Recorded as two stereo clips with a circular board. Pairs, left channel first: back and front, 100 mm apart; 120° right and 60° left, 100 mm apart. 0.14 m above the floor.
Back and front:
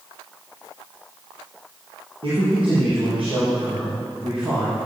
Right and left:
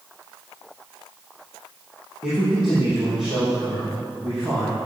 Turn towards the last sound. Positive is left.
turn(degrees=-20)